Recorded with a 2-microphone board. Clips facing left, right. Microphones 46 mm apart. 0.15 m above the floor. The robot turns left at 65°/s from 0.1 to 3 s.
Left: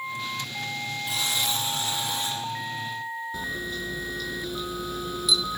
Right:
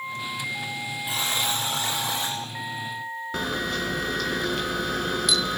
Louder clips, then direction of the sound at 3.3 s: Right 4 dB; 60° right (ahead or behind).